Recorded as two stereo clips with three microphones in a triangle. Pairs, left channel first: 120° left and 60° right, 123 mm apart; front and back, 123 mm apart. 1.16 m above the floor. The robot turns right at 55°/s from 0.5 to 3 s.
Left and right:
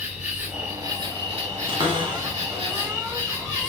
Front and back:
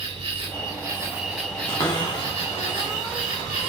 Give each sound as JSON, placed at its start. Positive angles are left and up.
{"t": 0.0, "sound": "an insect", "azimuth_deg": -140, "distance_m": 1.7}
{"t": 1.7, "sound": "a cupboard door", "azimuth_deg": -45, "distance_m": 1.0}